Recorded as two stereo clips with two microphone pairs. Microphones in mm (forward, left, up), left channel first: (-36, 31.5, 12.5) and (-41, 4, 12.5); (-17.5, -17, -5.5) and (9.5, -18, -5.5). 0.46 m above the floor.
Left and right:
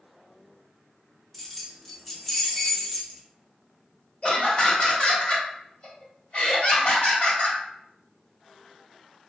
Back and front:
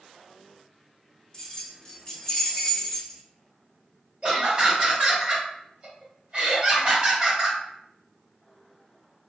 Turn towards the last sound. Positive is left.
turn(degrees=65)